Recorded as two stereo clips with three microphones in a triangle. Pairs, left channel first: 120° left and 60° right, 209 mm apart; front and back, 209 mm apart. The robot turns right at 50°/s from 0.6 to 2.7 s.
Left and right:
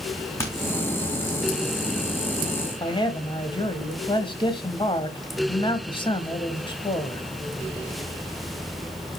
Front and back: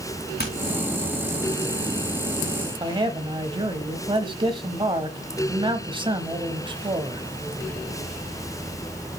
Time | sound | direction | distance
0.4 | hammering | 40° left | 4 m
2.8 | a man speaking | 150° left | 1.1 m